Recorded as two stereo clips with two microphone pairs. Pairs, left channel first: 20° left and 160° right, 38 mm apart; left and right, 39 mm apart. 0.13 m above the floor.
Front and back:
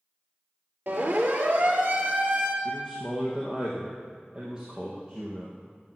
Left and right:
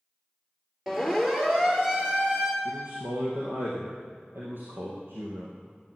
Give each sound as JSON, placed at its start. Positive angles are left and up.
{"t": 0.9, "sound": "a siren", "azimuth_deg": -165, "distance_m": 4.0}
{"t": 2.6, "sound": "a man speaking", "azimuth_deg": -90, "distance_m": 3.5}